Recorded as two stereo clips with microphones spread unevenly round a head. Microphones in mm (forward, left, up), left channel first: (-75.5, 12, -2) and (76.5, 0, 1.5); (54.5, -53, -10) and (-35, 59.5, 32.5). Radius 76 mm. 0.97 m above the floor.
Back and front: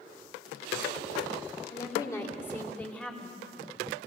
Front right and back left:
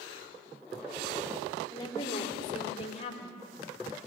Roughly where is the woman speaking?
Behind right.